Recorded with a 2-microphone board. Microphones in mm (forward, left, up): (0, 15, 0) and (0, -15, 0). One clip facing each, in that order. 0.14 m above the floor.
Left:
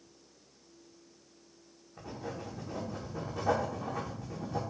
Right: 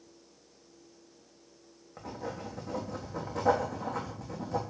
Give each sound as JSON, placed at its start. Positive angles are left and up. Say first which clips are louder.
{"t": 2.0, "sound": "writing", "louder": "right 2 dB", "side_deg": -65, "distance_m": 3.0}